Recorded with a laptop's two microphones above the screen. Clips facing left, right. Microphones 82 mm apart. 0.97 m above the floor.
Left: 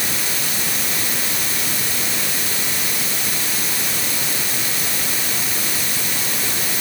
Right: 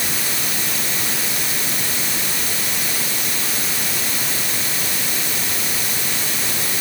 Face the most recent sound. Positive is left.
No sound to turn to.